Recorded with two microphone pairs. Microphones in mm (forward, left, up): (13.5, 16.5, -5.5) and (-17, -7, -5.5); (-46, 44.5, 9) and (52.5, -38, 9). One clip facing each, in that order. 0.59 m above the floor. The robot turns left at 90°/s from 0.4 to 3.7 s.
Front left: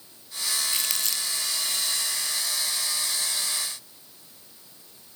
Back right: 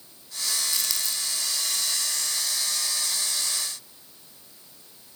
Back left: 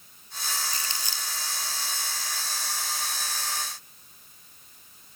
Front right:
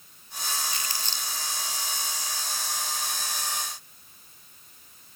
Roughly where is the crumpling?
Left.